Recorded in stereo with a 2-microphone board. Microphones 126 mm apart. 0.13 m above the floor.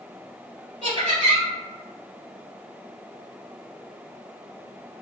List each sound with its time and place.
0.8 s laughter: 40° right (ahead or behind), 1.6 m